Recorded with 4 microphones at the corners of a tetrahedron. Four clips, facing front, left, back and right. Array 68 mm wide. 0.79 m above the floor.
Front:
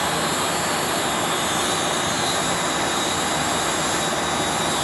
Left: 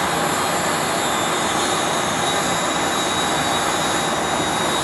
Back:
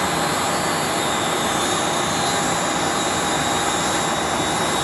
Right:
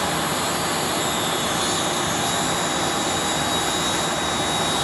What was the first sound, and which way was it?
An insect, 10° right.